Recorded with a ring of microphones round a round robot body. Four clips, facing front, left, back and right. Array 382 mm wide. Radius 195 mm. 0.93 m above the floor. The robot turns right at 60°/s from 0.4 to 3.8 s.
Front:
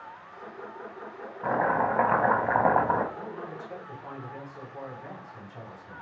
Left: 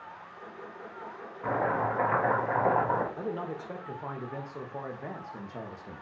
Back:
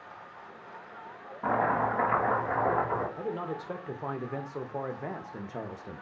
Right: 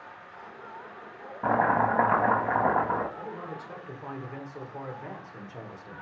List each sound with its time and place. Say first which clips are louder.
1.4 s chopping: right 5 dB, front 2 dB; 90° right, 1.4 m; by 3.1 s 10° left, 1.4 m
3.2 s a man speaking: left 3 dB, back 3 dB; 125° left, 1.1 m; by 6.0 s 165° left, 1.1 m